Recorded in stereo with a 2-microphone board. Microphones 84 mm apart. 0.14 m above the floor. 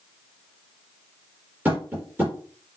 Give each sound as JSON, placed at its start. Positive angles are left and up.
{"t": 1.6, "sound": "tapping", "side_deg": -20, "distance_m": 4.0}